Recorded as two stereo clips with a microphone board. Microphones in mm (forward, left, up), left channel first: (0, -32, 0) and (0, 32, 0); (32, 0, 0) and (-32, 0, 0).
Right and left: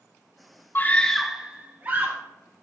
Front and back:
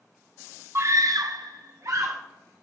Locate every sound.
0.8 s a scream: 140° right, 0.5 m; by 2.2 s 145° left, 1.1 m